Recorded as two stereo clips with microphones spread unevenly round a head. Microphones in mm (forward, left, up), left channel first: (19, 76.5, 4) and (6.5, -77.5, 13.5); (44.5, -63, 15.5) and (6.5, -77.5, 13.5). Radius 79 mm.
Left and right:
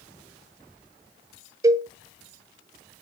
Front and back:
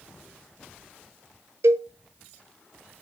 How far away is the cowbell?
About 0.5 m.